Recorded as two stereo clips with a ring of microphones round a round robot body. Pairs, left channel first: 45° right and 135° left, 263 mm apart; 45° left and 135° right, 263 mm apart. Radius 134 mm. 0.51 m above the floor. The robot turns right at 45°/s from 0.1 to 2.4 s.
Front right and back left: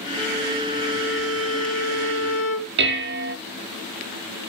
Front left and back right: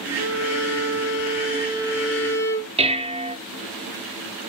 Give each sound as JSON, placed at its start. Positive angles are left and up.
{"t": 0.2, "sound": "a violin", "azimuth_deg": -135, "distance_m": 3.0}
{"t": 2.8, "sound": "dishes clattering", "azimuth_deg": 165, "distance_m": 0.8}